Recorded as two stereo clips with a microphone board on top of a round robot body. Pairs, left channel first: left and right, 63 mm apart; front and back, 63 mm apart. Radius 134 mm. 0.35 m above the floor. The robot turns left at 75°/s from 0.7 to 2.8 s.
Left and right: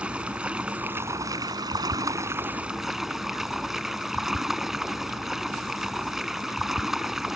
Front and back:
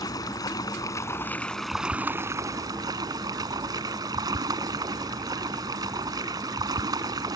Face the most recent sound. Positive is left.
turn(degrees=-175)